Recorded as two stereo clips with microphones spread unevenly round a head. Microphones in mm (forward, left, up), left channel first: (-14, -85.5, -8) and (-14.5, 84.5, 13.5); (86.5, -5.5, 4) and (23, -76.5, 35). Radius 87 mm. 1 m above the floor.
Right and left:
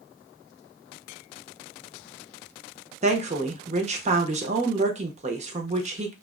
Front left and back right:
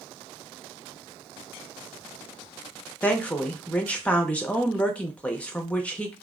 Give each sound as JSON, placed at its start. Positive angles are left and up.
{"t": 3.0, "sound": "a woman speaking", "azimuth_deg": 65, "distance_m": 0.5}